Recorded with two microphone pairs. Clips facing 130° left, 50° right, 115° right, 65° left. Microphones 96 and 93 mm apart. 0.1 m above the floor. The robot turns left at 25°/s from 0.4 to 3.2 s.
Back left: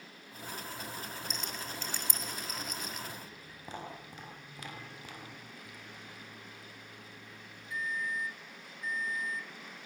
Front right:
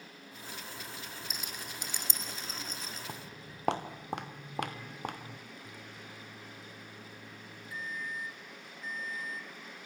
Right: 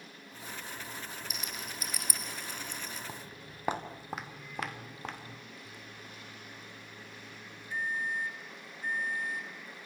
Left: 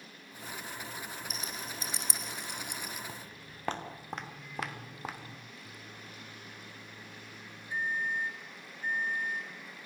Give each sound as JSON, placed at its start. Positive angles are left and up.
{"t": 1.3, "sound": "a rattle", "azimuth_deg": 30, "distance_m": 2.5}
{"t": 3.1, "sound": "footsteps", "azimuth_deg": -40, "distance_m": 3.0}
{"t": 5.6, "sound": "a microwave", "azimuth_deg": -5, "distance_m": 1.4}